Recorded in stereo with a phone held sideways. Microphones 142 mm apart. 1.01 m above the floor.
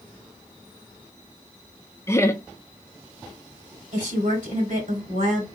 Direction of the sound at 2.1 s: 20° left (ahead or behind).